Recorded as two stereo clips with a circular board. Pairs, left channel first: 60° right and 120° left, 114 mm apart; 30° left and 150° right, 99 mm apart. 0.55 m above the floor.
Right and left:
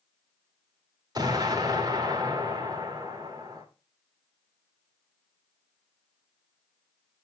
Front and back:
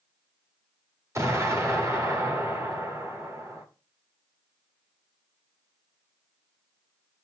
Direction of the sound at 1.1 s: 160° left.